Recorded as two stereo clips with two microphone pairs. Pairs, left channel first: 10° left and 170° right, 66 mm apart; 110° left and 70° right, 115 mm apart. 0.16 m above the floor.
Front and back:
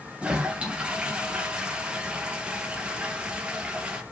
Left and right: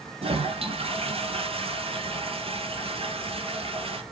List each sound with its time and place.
0.2 s a toilet flushing: 95° right, 1.2 m